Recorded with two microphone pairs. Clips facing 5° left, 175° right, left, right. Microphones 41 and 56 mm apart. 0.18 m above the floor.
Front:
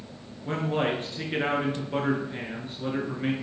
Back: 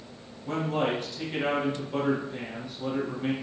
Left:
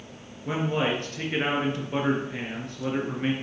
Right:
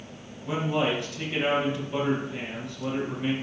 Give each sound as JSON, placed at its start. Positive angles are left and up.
{"t": 0.5, "sound": "a man speaking", "azimuth_deg": 50, "distance_m": 3.0}